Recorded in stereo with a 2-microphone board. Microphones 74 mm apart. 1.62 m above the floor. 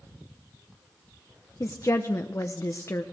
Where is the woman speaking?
40° left (ahead or behind), 0.7 m.